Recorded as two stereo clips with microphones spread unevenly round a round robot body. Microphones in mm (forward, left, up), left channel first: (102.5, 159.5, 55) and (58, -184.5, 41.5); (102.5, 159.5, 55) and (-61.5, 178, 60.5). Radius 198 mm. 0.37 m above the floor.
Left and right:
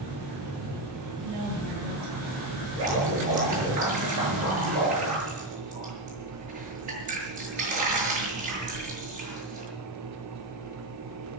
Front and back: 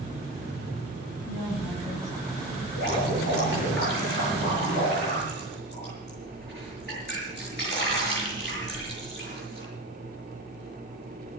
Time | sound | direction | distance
1.2 | a woman speaking | 105° right | 10 m
2.8 | dripping | 140° right | 7 m